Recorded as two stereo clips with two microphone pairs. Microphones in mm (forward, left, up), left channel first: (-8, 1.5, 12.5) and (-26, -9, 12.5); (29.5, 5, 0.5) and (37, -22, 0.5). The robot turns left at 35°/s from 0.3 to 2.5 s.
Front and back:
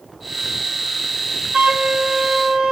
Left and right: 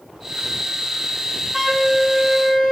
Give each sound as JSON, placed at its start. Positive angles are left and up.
{"t": 1.5, "sound": "a flute", "azimuth_deg": -160, "distance_m": 1.4}